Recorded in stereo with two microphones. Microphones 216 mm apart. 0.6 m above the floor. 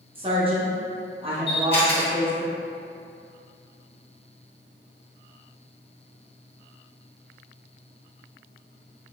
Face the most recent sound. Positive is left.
turn(degrees=25)  # may be behind; listen again after turning